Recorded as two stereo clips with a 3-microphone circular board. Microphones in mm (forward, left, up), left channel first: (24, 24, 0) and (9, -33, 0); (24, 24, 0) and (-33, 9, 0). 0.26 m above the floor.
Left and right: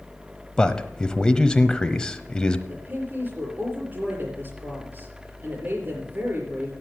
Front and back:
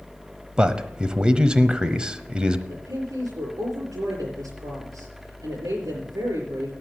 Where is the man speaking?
135° left, 1.0 m.